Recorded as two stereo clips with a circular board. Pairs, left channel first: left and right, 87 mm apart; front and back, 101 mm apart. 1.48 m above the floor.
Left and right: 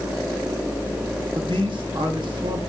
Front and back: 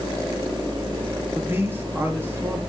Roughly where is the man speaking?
Right.